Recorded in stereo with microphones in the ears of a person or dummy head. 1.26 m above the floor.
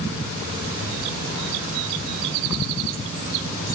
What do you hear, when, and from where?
Only background noise.